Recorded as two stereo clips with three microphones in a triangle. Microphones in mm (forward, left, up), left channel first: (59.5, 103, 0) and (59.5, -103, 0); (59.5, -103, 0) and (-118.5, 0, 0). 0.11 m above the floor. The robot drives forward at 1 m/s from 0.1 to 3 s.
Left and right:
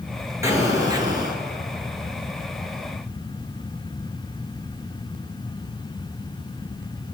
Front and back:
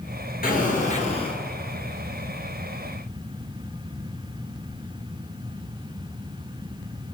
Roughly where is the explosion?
Ahead.